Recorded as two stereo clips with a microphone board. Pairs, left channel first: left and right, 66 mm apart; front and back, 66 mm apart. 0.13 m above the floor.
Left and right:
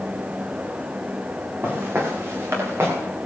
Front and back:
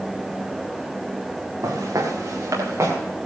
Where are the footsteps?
145° right, 4.5 m; by 3.0 s 135° right, 5 m.